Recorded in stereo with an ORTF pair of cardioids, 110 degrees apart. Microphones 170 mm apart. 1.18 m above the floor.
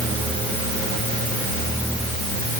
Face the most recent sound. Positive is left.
No sound to turn to.